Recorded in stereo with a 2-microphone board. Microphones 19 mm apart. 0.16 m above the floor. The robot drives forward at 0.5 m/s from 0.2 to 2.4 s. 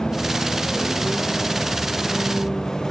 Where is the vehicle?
30° left (ahead or behind); by 2.9 s 25° left (ahead or behind).